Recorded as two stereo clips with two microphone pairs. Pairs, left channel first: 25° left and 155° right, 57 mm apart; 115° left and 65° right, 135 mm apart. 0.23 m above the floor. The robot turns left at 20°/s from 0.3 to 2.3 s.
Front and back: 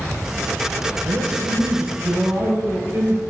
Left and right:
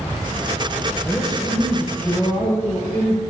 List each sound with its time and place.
1.1 s a man speaking: 155° right, 6 m; by 3.2 s straight behind, 6 m